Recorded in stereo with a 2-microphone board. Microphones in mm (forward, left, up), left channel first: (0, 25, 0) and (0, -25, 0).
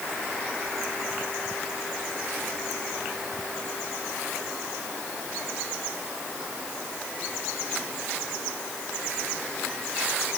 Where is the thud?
I don't hear a thud.